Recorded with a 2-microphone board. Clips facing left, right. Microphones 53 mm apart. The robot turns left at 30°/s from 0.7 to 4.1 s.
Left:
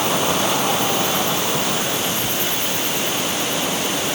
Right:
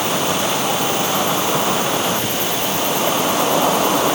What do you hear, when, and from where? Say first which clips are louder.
0.0 s an insect: even; straight ahead; by 4.2 s 105° right